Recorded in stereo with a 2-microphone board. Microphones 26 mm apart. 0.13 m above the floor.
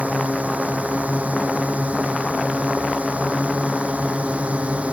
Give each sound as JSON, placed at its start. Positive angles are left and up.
{"t": 0.0, "sound": "a drone", "side_deg": -65}